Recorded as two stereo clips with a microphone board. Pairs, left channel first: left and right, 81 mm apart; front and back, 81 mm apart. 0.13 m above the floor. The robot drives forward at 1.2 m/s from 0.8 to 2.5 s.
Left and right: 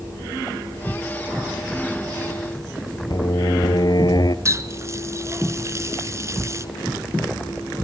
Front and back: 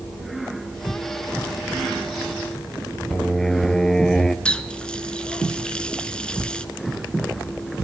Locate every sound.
3.1 s singing: 85° left, 0.9 m
4.5 s a running tap: 70° right, 0.9 m